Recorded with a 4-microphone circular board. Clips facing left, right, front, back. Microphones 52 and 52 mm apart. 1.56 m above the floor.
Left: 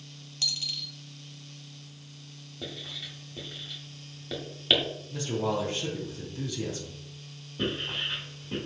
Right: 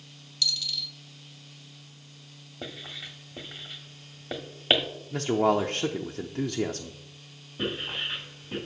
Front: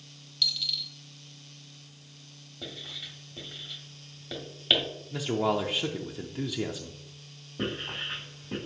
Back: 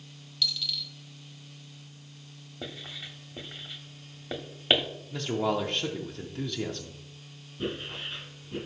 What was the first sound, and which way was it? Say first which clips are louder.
A dropped coin: right 3 dB, even; 90° left.